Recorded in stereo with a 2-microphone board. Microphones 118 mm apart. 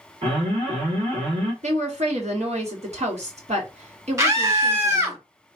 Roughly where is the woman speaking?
Right.